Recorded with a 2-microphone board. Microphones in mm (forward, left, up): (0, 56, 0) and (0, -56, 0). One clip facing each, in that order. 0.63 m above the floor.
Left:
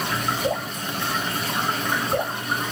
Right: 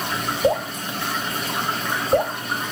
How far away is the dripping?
About 1.0 m.